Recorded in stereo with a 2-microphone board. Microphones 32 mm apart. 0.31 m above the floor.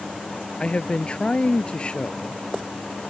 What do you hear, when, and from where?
0.6 s a man speaking: 35° left (ahead or behind)